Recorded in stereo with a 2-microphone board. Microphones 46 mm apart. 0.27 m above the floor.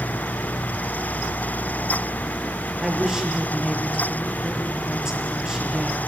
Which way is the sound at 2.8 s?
15° right (ahead or behind).